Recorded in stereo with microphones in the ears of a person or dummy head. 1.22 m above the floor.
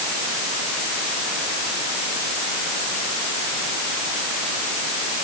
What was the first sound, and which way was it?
Only background noise.